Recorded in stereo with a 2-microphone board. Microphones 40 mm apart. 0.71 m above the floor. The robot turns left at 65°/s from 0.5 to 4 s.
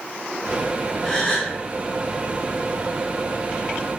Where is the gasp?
20° left (ahead or behind), 1.0 m; by 1.5 s 10° left (ahead or behind), 1.0 m.